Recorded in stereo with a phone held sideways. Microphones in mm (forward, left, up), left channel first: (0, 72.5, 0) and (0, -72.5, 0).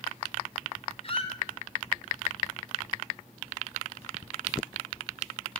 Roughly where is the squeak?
Left.